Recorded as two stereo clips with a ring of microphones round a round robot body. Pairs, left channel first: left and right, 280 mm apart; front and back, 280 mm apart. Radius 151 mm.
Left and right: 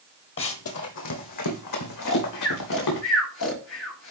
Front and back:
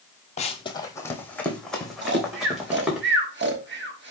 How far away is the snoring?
About 1.4 m.